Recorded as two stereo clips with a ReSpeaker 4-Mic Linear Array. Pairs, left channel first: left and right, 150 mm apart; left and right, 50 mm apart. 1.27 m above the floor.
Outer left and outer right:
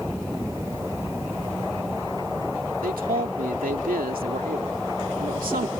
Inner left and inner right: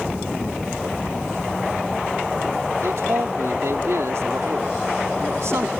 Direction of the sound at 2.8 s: 70° right (ahead or behind).